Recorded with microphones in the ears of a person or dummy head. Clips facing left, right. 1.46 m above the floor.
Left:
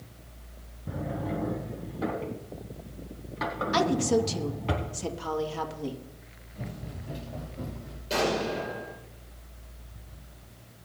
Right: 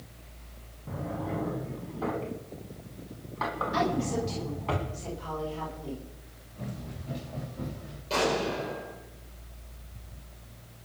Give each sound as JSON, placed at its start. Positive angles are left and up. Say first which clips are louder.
{"t": 0.9, "sound": "a drawer", "louder": "left 1 dB", "side_deg": 20, "distance_m": 3.0}
{"t": 3.7, "sound": "a woman speaking", "louder": "left 5 dB", "side_deg": 70, "distance_m": 2.0}
{"t": 6.5, "sound": "running footsteps", "louder": "even", "side_deg": 15, "distance_m": 5.5}
{"t": 8.1, "sound": "an explosion", "louder": "even", "side_deg": 15, "distance_m": 5.5}